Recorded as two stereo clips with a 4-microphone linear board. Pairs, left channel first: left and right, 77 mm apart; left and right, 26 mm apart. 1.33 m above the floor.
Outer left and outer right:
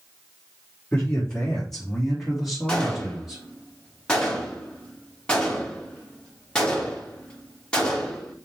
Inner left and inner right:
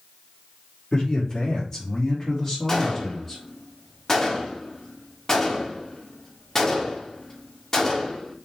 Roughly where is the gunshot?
Centre.